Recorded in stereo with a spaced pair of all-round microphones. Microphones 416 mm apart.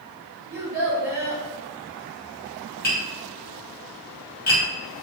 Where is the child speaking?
10° right (ahead or behind), 1.8 m.